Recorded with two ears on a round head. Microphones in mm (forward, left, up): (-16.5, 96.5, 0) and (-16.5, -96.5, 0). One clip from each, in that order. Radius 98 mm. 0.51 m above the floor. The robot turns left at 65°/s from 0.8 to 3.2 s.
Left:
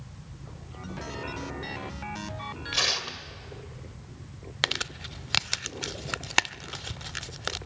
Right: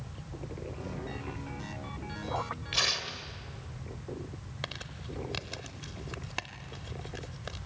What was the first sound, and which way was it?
Tearing paper, 5° left (ahead or behind).